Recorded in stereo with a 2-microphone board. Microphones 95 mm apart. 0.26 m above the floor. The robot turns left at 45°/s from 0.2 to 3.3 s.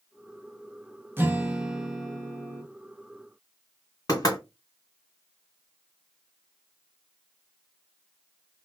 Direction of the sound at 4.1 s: 40° left (ahead or behind).